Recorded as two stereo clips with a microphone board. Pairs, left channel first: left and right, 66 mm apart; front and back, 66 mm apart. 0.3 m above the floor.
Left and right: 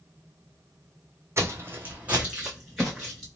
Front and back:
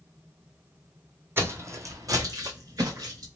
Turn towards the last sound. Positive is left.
turn(degrees=180)